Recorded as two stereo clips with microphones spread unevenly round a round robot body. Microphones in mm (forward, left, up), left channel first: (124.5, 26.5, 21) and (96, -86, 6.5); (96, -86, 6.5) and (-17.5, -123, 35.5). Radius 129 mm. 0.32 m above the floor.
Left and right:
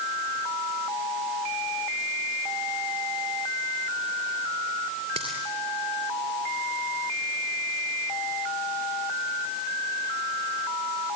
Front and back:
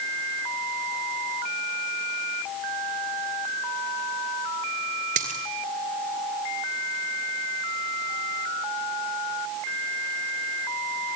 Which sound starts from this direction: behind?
A dropped coin, at 5.2 s.